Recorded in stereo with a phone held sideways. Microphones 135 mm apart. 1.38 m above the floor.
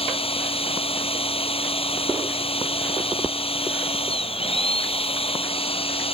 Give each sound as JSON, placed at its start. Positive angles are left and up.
{"t": 0.0, "sound": "a machine running", "side_deg": 45}